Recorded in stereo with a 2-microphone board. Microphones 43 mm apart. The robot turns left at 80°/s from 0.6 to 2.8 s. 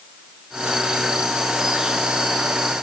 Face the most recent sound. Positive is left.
No sound to turn to.